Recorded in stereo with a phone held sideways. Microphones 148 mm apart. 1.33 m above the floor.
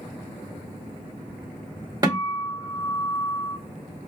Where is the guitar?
25° right (ahead or behind), 2.5 m.